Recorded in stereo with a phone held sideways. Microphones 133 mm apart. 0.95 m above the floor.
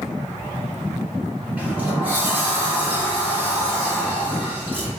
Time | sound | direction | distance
1.6 | a sliding door | 15° right (ahead or behind) | 1.4 m